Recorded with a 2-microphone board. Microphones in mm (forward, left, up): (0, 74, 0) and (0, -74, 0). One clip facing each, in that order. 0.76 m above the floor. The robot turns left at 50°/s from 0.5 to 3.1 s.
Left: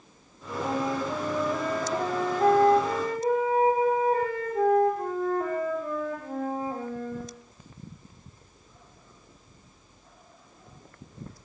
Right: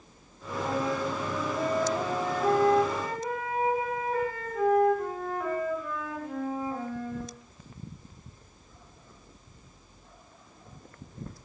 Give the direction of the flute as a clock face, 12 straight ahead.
7 o'clock.